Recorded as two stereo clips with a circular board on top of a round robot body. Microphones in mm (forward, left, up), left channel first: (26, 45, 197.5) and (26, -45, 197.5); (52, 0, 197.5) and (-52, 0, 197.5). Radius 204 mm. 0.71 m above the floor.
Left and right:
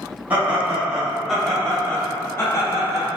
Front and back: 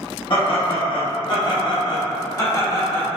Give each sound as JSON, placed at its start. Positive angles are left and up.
{"t": 0.3, "sound": "laughter", "azimuth_deg": -25, "distance_m": 1.5}